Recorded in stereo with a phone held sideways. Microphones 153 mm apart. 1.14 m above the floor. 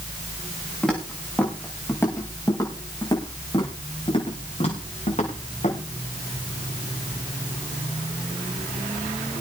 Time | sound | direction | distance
0.8 | footsteps | 5° left (ahead or behind) | 6 m